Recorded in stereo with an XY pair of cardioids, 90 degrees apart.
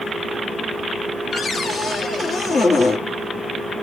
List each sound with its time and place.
1.3 s a cupboard door: 45° left, 1.3 m